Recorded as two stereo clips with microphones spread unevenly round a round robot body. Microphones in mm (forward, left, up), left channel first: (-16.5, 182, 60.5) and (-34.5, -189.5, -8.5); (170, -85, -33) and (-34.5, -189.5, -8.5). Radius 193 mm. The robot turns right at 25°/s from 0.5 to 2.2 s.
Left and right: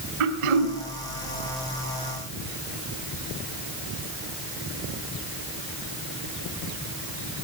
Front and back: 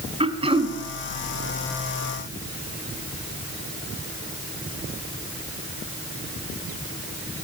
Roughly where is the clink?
No clink in this recording.